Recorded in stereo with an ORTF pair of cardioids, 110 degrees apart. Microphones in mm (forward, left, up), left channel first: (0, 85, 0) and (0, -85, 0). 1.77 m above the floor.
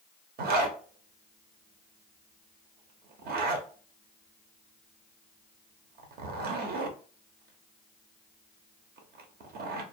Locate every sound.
0.4 s a zipper: 60° right, 0.7 m